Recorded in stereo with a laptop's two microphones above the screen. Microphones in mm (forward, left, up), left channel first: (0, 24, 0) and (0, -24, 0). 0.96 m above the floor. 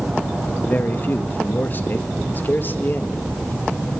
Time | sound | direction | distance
0.7 | a man speaking | 40° left (ahead or behind) | 1.6 m